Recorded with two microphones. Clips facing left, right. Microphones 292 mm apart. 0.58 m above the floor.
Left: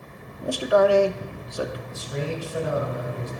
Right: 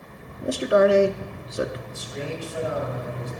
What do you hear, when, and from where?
0.4 s a man speaking: 25° right (ahead or behind), 0.6 m
1.9 s a man speaking: 70° left (ahead or behind), 2.5 m